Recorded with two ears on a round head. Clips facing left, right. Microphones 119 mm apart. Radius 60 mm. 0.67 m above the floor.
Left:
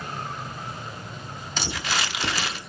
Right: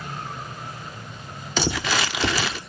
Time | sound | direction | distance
1.6 | crumpling | 60° right (ahead or behind) | 1.1 m